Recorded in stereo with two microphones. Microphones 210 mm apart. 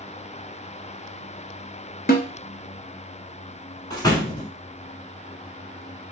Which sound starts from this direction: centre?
A door slam, at 3.9 s.